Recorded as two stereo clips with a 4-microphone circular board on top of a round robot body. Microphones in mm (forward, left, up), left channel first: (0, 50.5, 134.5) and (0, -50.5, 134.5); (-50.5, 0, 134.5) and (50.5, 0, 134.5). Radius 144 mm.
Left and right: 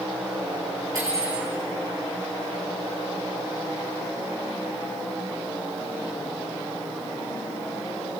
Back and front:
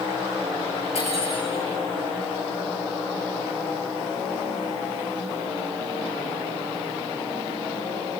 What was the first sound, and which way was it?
Cutlery clinking, 150° right.